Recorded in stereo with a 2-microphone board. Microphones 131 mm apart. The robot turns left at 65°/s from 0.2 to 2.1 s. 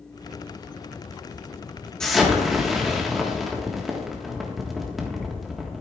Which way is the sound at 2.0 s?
5° left (ahead or behind).